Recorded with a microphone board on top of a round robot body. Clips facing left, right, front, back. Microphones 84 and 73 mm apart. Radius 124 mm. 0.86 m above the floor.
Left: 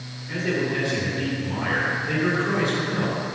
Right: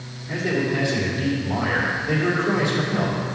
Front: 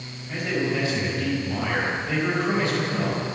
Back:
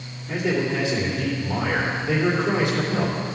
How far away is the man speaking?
About 2.5 m.